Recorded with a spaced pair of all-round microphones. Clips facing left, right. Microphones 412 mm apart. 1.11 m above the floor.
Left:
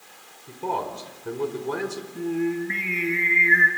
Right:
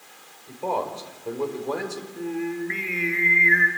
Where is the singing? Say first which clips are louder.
Left 3 dB; 45° left (ahead or behind), 5 m.